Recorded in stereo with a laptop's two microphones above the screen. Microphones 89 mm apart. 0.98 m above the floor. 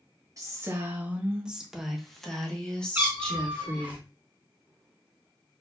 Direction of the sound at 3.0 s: 20° right (ahead or behind).